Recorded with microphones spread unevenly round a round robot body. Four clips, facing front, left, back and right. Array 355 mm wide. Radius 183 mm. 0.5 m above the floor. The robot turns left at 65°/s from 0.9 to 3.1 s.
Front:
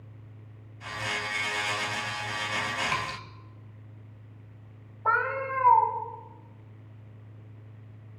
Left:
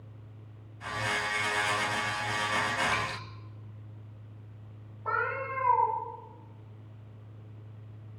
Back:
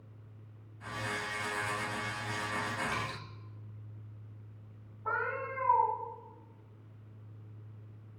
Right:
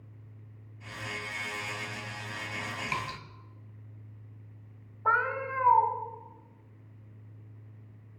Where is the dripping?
35° right, 3 m; by 3.2 s 50° right, 3 m.